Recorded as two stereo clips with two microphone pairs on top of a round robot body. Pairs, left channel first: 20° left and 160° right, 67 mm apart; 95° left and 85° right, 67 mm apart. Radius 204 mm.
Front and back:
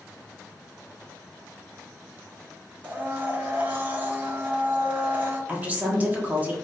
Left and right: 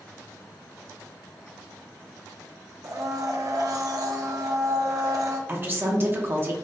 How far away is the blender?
About 0.8 m.